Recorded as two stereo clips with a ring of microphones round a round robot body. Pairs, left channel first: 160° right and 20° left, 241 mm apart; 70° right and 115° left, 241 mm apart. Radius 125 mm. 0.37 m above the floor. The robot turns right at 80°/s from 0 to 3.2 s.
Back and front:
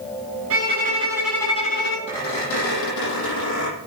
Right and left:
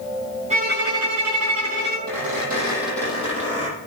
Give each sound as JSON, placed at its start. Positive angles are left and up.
{"t": 0.5, "sound": "a violin", "azimuth_deg": 50, "distance_m": 4.0}
{"t": 2.1, "sound": "a squeak", "azimuth_deg": 135, "distance_m": 9.5}